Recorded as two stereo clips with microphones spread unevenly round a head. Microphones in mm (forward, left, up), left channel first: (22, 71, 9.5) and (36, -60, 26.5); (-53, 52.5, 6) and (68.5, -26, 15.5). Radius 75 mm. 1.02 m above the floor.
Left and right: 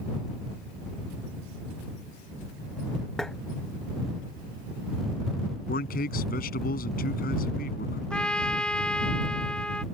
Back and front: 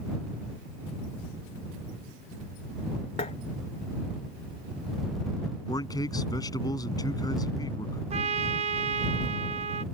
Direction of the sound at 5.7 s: 80° left.